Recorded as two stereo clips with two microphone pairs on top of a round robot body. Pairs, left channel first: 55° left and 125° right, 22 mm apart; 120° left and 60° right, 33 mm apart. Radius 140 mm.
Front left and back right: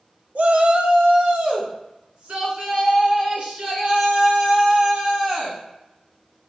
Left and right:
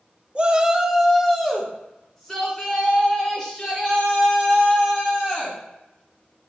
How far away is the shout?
About 0.8 m.